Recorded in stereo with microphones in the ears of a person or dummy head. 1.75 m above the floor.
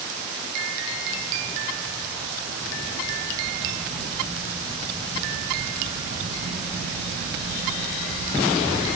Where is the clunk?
I don't hear a clunk.